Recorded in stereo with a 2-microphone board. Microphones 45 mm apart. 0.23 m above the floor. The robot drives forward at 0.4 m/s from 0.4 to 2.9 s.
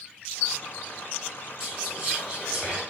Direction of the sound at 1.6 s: 20° right (ahead or behind).